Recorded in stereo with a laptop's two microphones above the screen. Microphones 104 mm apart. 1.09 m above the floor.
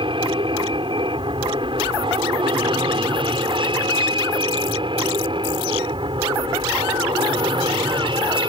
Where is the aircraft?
50° right (ahead or behind).